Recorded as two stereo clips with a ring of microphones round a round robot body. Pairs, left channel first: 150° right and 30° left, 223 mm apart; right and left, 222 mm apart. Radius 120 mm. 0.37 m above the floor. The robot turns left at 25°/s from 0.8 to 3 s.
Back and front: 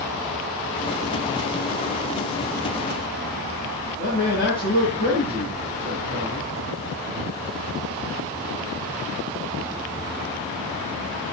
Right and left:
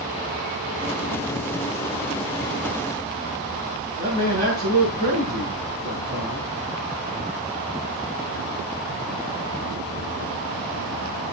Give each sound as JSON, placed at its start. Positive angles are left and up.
{"t": 4.0, "sound": "a man speaking", "azimuth_deg": 145, "distance_m": 8.5}